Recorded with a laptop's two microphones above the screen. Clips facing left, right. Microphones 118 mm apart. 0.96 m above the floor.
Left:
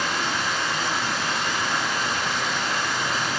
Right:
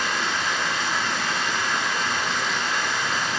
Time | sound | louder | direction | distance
0.0 | running water | even | 10° left (ahead or behind) | 1.2 m